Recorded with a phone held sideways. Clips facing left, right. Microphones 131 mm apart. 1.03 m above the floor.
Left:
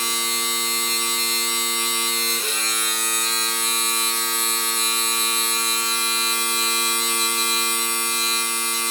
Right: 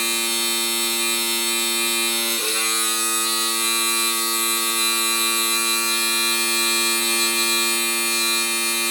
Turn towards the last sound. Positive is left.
turn(degrees=-55)  # may be behind; listen again after turning